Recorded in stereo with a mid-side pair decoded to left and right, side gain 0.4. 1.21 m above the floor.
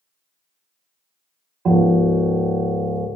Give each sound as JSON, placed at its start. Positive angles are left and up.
{"t": 1.6, "sound": "a piano", "azimuth_deg": -55, "distance_m": 0.7}